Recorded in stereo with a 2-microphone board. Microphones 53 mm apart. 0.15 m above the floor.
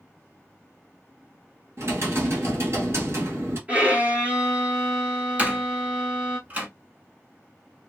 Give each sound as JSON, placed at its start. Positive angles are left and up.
{"t": 1.8, "sound": "typing on a keyboard", "side_deg": -55, "distance_m": 1.9}
{"t": 3.7, "sound": "a violin", "side_deg": -25, "distance_m": 1.0}
{"t": 5.4, "sound": "a door slam", "side_deg": -30, "distance_m": 0.9}